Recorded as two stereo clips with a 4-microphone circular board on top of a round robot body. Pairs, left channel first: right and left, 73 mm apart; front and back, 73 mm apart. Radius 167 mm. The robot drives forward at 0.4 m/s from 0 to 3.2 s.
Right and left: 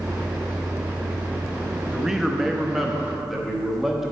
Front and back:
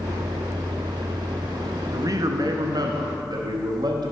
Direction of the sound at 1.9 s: 170° left.